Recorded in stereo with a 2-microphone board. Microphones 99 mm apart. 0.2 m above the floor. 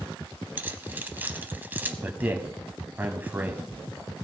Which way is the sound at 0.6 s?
20° right (ahead or behind).